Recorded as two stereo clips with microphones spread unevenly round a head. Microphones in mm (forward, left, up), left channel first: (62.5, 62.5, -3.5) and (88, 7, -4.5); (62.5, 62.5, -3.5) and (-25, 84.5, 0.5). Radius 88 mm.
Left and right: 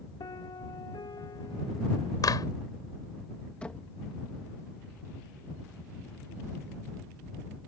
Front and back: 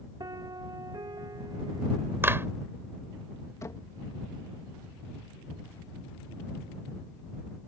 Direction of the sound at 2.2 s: 105° left.